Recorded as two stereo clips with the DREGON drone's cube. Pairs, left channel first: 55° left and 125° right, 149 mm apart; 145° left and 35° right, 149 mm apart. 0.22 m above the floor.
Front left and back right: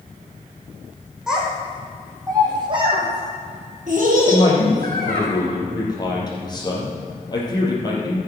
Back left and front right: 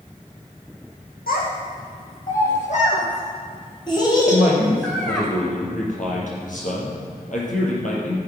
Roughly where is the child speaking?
Behind left.